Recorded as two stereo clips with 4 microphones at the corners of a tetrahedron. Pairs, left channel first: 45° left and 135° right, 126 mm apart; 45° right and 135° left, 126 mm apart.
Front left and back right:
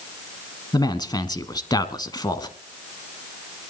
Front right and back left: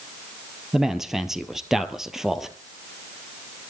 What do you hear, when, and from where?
0.7 s a man speaking: 50° left, 1.1 m